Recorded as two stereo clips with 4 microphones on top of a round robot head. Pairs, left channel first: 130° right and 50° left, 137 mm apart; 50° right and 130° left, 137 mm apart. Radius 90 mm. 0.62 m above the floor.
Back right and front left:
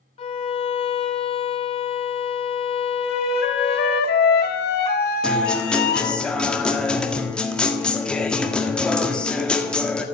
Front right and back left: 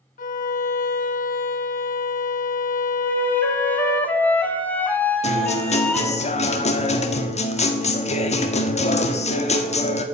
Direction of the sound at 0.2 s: 80° right.